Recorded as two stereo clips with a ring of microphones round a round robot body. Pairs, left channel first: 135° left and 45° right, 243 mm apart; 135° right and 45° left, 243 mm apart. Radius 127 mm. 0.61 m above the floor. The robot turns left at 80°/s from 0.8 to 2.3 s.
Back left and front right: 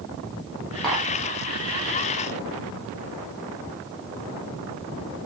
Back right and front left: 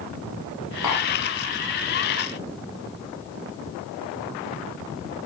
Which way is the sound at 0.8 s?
135° right.